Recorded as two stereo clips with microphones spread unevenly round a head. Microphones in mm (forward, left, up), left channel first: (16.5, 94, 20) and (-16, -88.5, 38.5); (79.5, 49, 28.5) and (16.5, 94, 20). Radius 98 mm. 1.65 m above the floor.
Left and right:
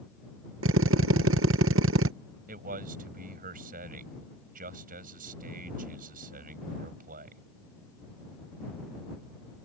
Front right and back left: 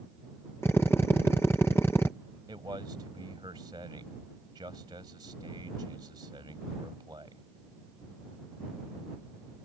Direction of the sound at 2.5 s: 145° right.